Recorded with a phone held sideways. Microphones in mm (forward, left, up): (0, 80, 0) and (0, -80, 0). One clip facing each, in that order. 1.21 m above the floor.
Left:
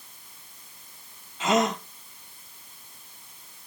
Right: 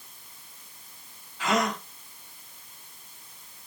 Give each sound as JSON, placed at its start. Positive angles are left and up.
{"t": 1.4, "sound": "a gasp", "side_deg": 25, "distance_m": 0.8}